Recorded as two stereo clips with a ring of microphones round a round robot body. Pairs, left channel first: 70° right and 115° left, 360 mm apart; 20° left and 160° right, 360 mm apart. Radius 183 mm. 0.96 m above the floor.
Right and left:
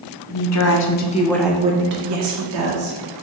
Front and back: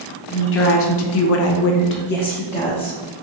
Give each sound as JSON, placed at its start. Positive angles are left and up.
{"t": 0.3, "sound": "a woman speaking", "azimuth_deg": -35, "distance_m": 0.8}